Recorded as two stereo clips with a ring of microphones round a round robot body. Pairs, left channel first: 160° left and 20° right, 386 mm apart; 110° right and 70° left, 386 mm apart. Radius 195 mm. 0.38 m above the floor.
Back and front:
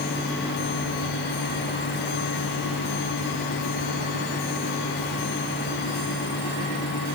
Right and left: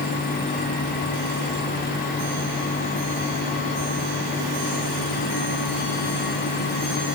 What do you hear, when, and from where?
Only background noise.